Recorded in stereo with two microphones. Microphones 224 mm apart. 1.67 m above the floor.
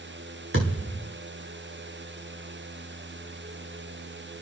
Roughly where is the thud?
Right.